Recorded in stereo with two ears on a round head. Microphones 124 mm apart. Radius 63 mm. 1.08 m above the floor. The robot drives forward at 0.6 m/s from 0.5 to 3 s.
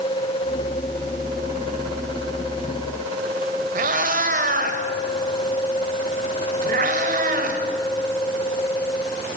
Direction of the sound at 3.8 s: 60° right (ahead or behind).